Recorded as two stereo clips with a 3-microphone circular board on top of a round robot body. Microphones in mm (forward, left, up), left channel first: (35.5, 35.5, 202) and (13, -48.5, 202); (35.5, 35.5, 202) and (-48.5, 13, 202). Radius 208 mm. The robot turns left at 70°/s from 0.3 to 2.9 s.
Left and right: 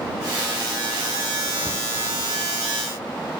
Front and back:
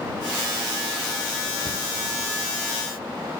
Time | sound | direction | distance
1.6 | a cupboard door | straight ahead | ?